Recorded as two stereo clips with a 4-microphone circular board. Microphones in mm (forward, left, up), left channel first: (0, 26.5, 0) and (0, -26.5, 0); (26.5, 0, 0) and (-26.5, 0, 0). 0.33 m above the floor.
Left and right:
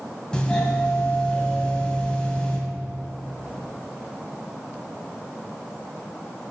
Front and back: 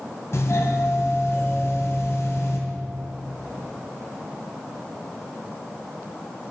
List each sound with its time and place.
0.3 s a doorbell: 20° left, 2.5 m